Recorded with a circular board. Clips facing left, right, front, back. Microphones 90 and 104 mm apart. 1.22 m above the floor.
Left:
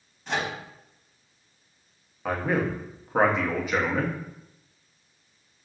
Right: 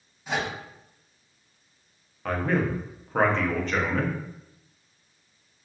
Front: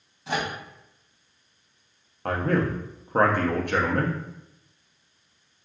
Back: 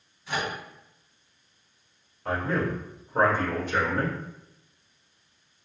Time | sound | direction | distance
0.3 | a microwave | 5° right | 1.2 m
2.2 | a man speaking | 10° left | 0.8 m